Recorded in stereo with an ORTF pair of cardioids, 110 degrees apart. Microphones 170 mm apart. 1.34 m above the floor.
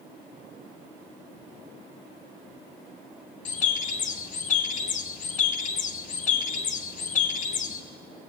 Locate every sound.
3.5 s a bird: 50° left, 0.9 m